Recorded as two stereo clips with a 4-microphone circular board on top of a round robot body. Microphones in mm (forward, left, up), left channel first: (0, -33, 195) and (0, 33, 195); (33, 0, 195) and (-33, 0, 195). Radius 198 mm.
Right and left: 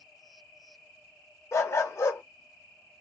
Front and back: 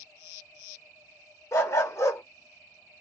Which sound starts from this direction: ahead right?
A dog barking, at 1.5 s.